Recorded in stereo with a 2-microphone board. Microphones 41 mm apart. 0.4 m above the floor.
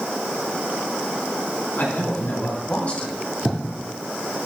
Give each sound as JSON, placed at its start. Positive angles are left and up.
{"t": 1.8, "sound": "a man speaking", "side_deg": 60, "distance_m": 3.5}
{"t": 3.5, "sound": "writing", "side_deg": 15, "distance_m": 3.5}